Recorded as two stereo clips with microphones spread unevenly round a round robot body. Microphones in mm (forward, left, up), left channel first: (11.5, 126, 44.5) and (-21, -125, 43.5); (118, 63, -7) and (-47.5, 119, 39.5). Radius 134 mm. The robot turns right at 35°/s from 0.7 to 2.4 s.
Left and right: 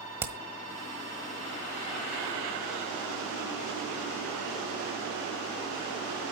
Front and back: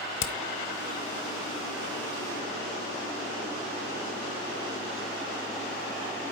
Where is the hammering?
15° right, 1.4 m.